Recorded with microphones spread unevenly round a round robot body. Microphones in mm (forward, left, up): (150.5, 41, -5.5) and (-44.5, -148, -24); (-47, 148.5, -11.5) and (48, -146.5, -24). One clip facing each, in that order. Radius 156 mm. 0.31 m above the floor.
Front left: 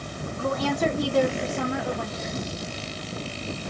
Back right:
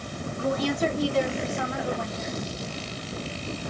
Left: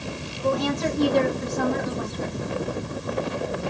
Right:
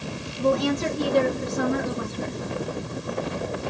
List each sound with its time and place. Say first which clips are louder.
0.4 s a woman speaking: even, right 2 dB; 15° left, 2.5 m; by 2.4 s straight ahead, 1.9 m